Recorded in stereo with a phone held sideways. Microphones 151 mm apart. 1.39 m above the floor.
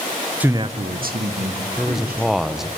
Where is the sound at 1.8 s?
Centre (ahead or behind), 0.9 m.